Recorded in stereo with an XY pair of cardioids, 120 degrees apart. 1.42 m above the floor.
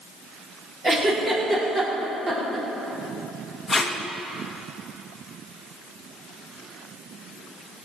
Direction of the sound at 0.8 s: 25° right.